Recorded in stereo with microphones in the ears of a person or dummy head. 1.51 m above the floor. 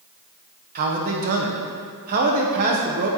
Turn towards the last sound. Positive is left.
turn(degrees=-50)  # may be behind; listen again after turning